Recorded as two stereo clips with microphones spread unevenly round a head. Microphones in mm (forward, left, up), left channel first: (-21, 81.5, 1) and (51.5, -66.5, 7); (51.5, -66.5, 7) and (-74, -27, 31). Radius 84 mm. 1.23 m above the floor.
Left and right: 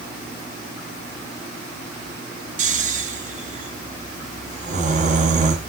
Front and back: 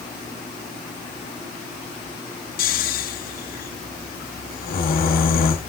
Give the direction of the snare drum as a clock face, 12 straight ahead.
I don't hear a snare drum.